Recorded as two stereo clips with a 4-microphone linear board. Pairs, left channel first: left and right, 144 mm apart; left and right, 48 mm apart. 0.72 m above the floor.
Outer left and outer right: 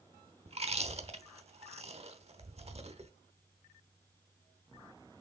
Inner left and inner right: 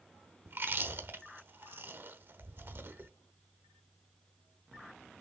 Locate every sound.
0.5 s chewing: 45° right (ahead or behind), 0.9 m